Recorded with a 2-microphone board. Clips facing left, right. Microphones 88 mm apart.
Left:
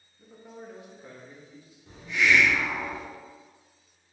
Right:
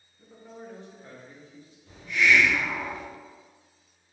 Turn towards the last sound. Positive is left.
turn(degrees=30)  # may be behind; listen again after turning